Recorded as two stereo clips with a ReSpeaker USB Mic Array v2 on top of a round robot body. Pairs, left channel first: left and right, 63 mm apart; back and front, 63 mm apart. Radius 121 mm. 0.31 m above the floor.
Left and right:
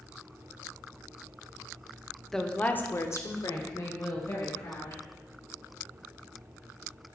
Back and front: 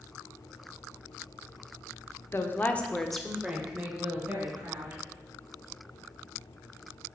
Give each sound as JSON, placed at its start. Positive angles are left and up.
{"t": 2.3, "sound": "a woman speaking", "azimuth_deg": 170, "distance_m": 1.0}